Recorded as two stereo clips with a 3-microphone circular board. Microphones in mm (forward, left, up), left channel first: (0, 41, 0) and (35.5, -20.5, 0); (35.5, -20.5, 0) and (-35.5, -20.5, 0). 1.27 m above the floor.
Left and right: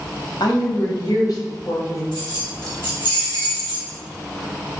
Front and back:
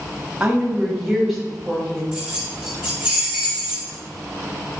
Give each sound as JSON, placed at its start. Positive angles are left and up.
{"t": 0.4, "sound": "a woman speaking", "azimuth_deg": 105, "distance_m": 1.4}
{"t": 2.1, "sound": "keys jangling", "azimuth_deg": 100, "distance_m": 2.0}